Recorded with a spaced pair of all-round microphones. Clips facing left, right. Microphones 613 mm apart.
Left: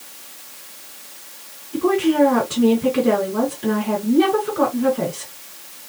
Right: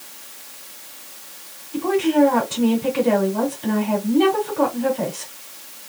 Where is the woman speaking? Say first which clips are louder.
Left 1 dB; 85° left, 2 m.